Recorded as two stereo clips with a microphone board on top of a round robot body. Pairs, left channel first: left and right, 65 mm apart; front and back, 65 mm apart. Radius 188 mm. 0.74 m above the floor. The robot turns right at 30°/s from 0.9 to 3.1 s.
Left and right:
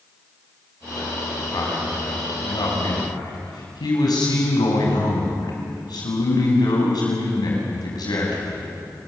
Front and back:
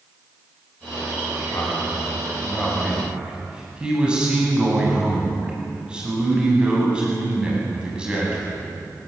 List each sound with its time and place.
1.5 s a man speaking: 55° left, 8.5 m; by 8.7 s 105° left, 8.5 m